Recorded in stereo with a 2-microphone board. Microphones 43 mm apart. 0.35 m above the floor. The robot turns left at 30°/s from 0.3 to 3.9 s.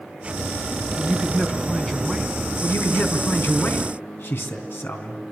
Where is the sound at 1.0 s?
40° left, 4 m; by 2.4 s 5° right, 4 m.